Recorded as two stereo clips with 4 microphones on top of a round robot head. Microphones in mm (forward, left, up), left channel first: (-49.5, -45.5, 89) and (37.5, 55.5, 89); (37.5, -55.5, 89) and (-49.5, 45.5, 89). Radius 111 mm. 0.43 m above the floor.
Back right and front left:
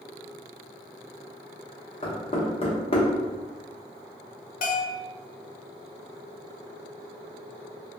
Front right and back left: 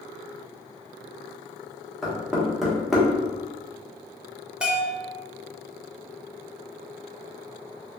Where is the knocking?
140° right, 1.2 m.